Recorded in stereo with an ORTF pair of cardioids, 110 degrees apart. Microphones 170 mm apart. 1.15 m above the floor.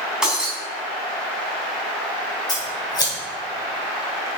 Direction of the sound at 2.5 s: 25° left.